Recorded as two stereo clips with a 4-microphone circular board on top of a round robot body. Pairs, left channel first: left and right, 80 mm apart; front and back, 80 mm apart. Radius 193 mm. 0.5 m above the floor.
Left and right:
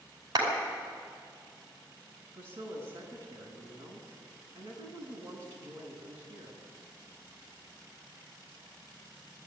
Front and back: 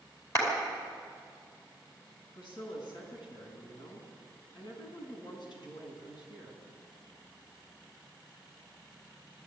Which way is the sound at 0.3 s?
50° right.